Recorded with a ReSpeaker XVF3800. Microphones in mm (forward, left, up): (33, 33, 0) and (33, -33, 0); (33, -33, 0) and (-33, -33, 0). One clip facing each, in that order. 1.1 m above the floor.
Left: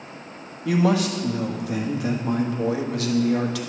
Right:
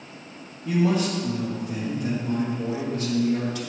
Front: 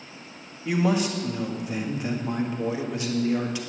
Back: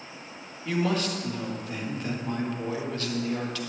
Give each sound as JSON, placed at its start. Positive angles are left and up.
{"t": 0.7, "sound": "a man speaking", "azimuth_deg": 75, "distance_m": 1.4}